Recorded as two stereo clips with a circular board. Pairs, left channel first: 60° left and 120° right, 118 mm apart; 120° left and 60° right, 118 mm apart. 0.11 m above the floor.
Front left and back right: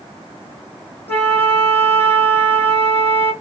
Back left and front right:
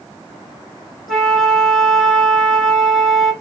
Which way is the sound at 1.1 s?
30° left.